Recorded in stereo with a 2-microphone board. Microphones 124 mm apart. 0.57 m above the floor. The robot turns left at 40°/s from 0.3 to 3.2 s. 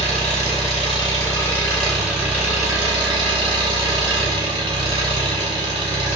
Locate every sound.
0.0 s an engine running: 65° left, 1.7 m; by 6.2 s 50° right, 1.7 m